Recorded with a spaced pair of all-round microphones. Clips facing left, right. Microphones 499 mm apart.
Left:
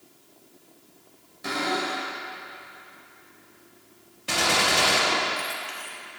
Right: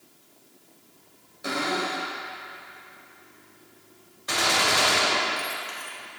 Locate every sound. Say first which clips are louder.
1.4 s a cupboard door: even; 20° left (ahead or behind), 2.5 m
4.3 s a gunshot: left 1 dB; 50° left (ahead or behind), 1.3 m